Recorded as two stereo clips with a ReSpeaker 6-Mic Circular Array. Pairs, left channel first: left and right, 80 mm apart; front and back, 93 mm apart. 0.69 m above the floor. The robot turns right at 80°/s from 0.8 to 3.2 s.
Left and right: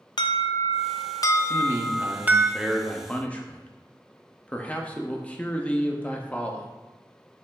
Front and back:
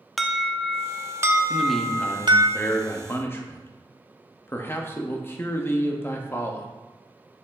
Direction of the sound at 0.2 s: 90° left.